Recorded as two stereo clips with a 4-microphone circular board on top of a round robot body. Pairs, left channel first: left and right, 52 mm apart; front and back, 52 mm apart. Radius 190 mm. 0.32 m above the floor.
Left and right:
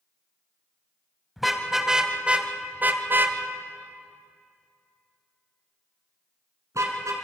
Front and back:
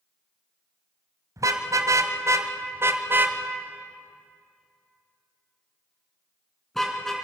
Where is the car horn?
Straight behind, 2 m; by 7.1 s 85° right, 4 m.